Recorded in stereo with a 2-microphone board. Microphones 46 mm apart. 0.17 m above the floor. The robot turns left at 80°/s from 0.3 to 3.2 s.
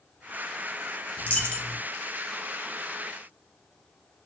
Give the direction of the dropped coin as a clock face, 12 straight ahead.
10 o'clock.